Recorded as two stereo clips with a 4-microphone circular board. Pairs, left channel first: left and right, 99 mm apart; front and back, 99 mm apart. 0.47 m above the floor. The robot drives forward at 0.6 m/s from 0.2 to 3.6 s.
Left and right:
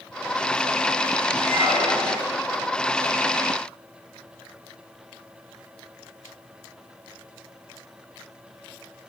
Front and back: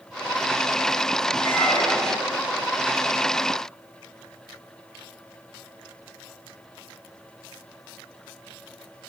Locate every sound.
1.4 s a squeak: 65° right, 10 m; by 2.3 s 70° right, 9.5 m